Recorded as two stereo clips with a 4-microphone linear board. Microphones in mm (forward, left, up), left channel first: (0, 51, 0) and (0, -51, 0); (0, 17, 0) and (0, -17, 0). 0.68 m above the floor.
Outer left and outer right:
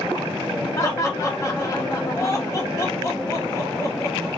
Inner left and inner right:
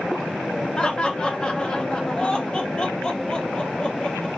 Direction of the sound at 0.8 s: 30° left (ahead or behind).